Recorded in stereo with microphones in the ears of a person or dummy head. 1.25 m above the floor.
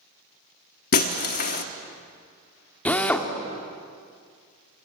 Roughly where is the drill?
Centre.